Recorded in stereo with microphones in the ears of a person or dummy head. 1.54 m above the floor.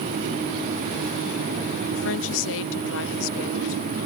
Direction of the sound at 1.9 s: 65° left (ahead or behind).